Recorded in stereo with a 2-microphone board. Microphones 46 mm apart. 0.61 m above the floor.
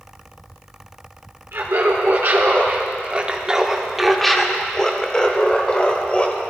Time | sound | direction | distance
1.5 | laughter | 65° right (ahead or behind) | 1.4 m